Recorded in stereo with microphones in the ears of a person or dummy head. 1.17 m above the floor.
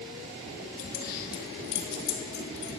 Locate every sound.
0.8 s keys jangling: 45° left (ahead or behind), 0.9 m; by 2.7 s 65° left (ahead or behind), 1.9 m